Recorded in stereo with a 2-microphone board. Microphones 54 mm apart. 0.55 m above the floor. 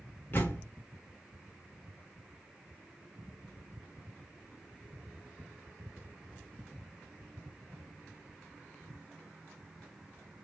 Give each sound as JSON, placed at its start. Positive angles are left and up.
{"t": 0.3, "sound": "a door slam", "side_deg": 45, "distance_m": 1.0}